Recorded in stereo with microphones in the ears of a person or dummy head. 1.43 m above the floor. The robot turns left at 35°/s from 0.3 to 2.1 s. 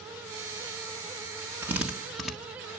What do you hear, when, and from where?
1.6 s a drill: 15° right (ahead or behind), 1.0 m; by 2.3 s 5° right (ahead or behind), 1.0 m